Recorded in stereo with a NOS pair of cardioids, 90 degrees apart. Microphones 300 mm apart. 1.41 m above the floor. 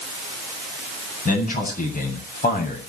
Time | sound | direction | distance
1.2 | a man speaking | 25° left | 9.5 m